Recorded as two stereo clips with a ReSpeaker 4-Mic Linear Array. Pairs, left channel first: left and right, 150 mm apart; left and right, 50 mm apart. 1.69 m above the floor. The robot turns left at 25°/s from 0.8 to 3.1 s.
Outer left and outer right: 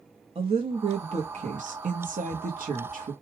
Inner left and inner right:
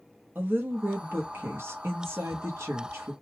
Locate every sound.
0.3 s a woman speaking: 45° right, 0.9 m; by 3.1 s 100° right, 0.9 m